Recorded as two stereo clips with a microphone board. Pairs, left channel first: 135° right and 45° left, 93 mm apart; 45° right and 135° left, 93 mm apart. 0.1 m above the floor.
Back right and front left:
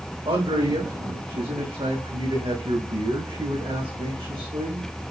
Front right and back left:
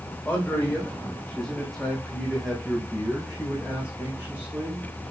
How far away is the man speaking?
About 5.5 m.